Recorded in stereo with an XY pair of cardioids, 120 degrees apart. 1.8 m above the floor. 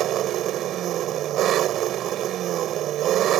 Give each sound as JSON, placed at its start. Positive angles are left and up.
{"t": 0.0, "sound": "an engine running", "azimuth_deg": -65}